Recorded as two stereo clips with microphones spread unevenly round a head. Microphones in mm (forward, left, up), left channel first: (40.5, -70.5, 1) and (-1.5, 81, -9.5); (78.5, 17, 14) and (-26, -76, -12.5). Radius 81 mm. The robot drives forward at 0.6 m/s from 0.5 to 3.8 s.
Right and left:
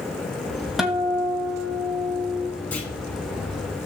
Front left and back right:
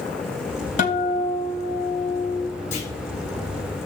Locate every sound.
0.8 s a guitar: 15° left, 2 m; by 2.5 s 30° left, 1.3 m
2.7 s a clunk: 5° left, 5 m